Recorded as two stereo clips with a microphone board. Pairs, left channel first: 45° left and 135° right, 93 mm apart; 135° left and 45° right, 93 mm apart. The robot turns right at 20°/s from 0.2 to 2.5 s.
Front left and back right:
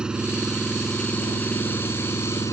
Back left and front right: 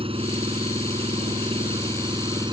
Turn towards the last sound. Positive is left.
turn(degrees=-10)